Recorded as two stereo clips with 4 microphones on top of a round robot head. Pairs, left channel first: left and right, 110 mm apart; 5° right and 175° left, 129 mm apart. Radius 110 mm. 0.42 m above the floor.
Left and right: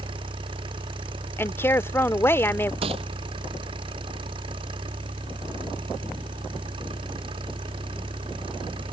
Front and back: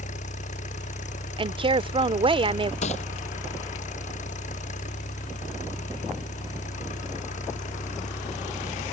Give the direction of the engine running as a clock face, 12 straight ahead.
1 o'clock.